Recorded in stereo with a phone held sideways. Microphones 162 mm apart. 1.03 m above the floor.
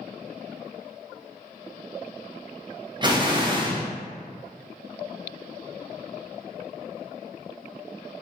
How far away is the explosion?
About 0.6 m.